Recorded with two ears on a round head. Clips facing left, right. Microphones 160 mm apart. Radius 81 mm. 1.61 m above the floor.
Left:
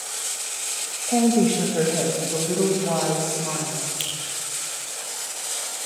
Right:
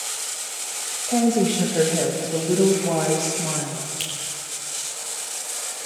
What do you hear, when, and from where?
1.1 s a woman speaking: centre (ahead or behind), 3 m; by 3.9 s 30° right (ahead or behind), 3 m
4.0 s a finger snap: 5° left (ahead or behind), 5.5 m